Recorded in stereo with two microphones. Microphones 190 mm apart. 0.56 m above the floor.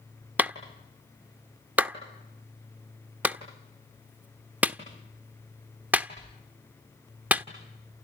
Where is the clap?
10° right (ahead or behind), 1.0 m.